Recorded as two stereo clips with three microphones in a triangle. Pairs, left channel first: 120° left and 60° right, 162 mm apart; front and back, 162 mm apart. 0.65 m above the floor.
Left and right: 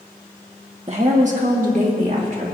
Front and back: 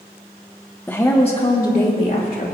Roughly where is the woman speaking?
Right.